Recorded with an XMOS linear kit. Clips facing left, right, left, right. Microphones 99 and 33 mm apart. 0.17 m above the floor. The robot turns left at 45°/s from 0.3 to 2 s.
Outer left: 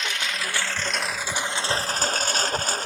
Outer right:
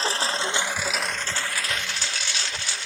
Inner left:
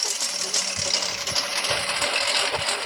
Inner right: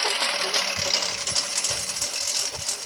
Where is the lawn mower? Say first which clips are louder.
Outer right 4 dB, inner right 5 dB; 145° right; by 2.9 s 135° left.